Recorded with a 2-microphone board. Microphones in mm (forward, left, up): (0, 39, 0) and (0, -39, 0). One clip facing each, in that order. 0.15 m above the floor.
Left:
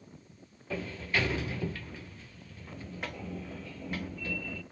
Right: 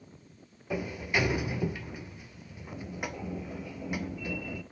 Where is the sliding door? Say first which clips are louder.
Right 2 dB; 15° right (ahead or behind), 0.8 m.